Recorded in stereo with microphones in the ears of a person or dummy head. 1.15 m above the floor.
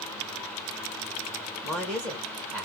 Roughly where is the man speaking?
Centre.